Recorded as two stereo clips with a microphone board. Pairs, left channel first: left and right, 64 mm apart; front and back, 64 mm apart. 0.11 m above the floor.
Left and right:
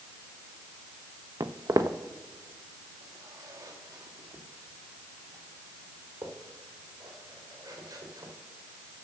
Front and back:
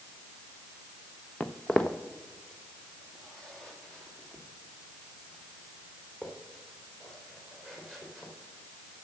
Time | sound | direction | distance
1.4 | footsteps | 70° right | 0.7 m